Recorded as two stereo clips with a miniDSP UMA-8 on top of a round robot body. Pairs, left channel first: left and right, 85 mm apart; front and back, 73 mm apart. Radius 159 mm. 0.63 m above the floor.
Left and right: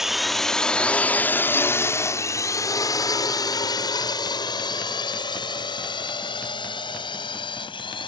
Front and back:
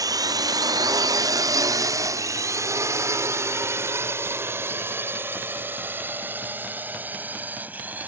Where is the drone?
175° right; by 8.1 s 110° left.